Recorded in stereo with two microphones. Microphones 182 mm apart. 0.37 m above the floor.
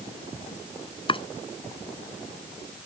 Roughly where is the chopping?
Left.